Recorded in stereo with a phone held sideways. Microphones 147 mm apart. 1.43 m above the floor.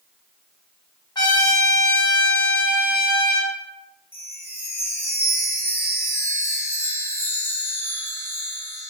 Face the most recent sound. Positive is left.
turn(degrees=15)  # may be behind; listen again after turning